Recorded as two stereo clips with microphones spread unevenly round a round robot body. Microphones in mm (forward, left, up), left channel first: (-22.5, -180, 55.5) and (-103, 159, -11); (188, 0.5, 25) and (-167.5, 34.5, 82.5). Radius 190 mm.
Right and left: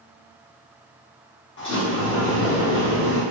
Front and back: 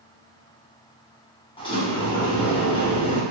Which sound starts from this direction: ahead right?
A sliding door, at 1.6 s.